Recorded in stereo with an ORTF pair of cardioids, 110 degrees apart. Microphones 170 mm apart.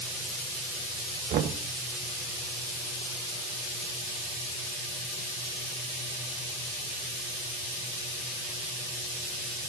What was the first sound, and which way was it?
Knocking, 50° right.